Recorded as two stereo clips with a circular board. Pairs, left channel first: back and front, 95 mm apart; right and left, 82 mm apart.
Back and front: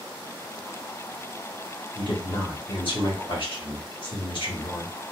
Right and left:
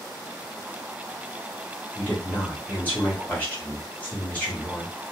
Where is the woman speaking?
160° right, 1.5 m.